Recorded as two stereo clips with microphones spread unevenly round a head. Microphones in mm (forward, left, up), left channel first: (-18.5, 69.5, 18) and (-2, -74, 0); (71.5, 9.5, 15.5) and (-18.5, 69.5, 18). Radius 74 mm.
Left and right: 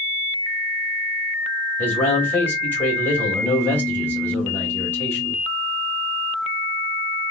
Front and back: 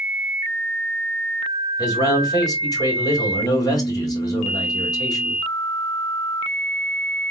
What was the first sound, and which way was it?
A man speaking, 20° left.